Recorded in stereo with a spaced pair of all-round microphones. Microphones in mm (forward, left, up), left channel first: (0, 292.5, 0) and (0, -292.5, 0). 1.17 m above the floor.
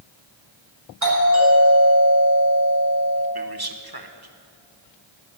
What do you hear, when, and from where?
1.0 s a doorbell: 30° right (ahead or behind), 7 m
3.4 s a man speaking: 40° right (ahead or behind), 1.3 m